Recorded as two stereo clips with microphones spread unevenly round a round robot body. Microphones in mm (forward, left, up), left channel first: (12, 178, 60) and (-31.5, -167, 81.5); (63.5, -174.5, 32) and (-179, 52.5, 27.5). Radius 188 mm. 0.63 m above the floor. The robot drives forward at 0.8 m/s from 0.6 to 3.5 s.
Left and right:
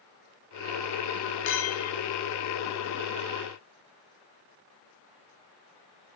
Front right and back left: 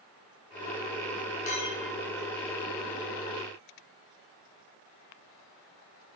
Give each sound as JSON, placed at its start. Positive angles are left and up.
{"t": 1.5, "sound": "a clink", "azimuth_deg": 25, "distance_m": 0.8}